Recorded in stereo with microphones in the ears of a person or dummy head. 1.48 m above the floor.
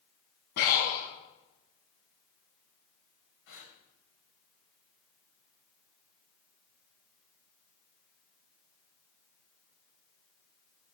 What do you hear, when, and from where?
0.6 s breathing: 65° left (ahead or behind), 4.5 m
3.5 s breathing: 50° left (ahead or behind), 3.5 m